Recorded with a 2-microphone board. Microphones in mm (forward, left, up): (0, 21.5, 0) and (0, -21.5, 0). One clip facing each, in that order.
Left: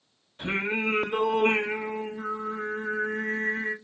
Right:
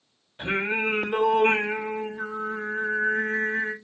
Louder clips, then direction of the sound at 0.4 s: Right 2 dB; 25° right (ahead or behind).